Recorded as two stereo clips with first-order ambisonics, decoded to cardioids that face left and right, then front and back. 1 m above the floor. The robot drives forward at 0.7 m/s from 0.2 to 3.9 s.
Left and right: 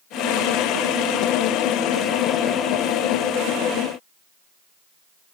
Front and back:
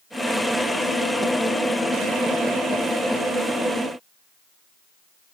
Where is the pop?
I don't hear a pop.